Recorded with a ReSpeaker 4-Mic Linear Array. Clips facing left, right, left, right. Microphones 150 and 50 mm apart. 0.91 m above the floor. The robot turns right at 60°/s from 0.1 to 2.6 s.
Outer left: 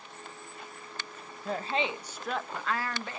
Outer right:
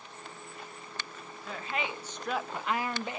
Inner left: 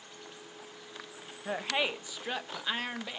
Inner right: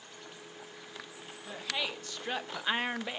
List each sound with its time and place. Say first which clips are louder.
1.4 s a woman speaking: outer left 5 dB, inner left 5 dB; 130° left, 0.5 m; by 3.2 s 160° right, 0.5 m